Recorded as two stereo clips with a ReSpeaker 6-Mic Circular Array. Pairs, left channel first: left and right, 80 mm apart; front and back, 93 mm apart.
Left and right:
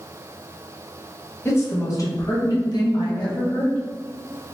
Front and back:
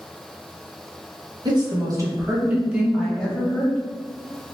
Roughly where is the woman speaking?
Behind left.